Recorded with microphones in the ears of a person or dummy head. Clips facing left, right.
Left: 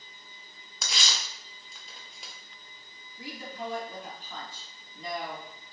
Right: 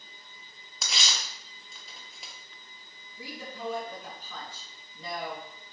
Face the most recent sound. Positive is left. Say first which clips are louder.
# left 1 dB
turn(degrees=-75)  # may be behind; listen again after turning